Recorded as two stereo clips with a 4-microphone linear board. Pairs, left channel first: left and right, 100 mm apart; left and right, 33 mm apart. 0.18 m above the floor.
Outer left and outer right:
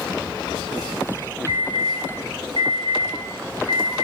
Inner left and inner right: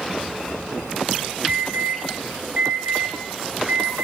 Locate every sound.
1.5 s an alarm: 65° right (ahead or behind), 4.5 m